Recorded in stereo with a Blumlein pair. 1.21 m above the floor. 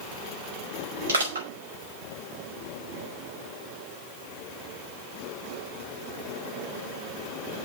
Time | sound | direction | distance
1.1 | crushing | 70° right | 5 m